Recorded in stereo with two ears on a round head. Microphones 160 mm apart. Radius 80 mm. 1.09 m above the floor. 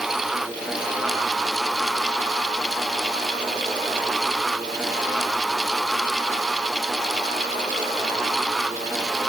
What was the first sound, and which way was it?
Only background noise.